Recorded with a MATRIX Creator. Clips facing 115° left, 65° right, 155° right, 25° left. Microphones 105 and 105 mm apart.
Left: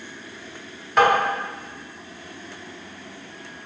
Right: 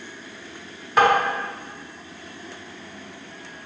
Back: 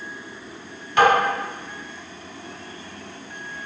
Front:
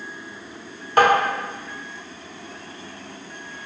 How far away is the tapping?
About 1.3 m.